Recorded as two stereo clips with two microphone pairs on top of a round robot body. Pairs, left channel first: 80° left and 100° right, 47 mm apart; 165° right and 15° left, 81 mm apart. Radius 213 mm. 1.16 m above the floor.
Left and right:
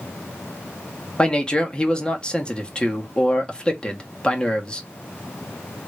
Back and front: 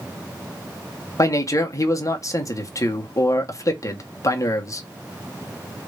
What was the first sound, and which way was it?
A man speaking, 150° left.